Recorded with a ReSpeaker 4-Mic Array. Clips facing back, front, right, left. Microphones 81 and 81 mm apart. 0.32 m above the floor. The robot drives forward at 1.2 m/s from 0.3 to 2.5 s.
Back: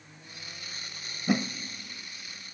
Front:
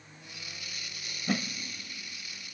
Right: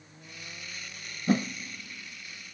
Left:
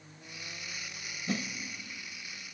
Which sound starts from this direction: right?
A whoosh, at 1.3 s.